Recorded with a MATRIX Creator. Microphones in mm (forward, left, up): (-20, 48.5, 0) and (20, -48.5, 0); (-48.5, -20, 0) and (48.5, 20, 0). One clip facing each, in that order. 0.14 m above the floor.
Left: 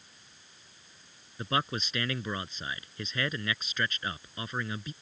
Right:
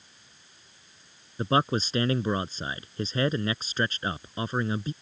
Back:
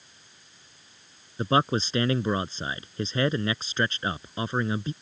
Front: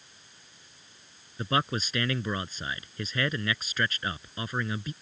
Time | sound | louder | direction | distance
1.4 | a man speaking | right 7 dB, back 5 dB | 110° right | ?